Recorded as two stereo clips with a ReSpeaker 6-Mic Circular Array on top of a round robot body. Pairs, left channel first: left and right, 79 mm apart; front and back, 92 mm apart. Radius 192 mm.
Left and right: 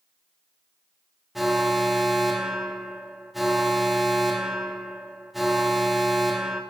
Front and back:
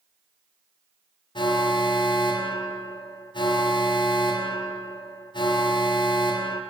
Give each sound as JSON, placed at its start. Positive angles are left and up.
{"t": 1.4, "sound": "an alarm", "azimuth_deg": 0, "distance_m": 0.7}